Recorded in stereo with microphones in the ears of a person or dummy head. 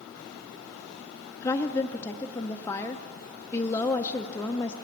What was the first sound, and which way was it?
A woman speaking, 20° left (ahead or behind).